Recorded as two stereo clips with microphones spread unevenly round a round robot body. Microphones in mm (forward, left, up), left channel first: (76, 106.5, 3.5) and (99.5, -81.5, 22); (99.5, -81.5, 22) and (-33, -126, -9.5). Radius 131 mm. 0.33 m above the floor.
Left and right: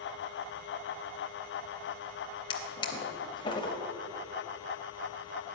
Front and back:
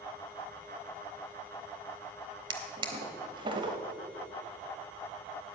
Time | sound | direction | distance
2.5 | a drawer | 155° left | 0.6 m